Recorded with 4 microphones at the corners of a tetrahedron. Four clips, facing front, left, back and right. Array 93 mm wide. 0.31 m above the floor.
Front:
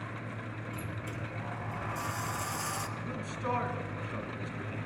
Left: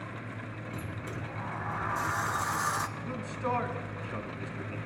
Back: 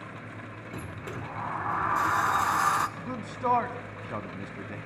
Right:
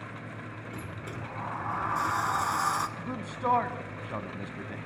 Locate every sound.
0.7 s a sliding door: 165° right, 1.2 m
3.0 s a man speaking: 140° right, 1.9 m